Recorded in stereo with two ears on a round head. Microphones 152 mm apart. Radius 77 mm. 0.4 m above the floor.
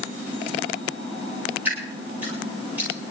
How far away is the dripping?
About 8 m.